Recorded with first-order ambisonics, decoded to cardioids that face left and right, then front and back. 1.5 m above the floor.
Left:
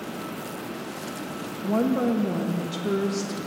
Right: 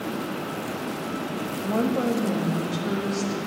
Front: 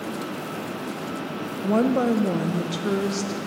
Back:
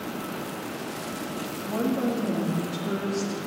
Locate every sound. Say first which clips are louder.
1.6 s a woman speaking: left 1 dB, front 7 dB; straight ahead, 0.6 m; by 3.4 s 10° left, 1.6 m